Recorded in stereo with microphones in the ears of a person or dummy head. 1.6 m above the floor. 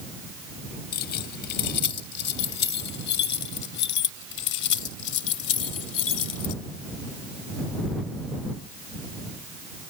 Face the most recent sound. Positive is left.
turn(degrees=80)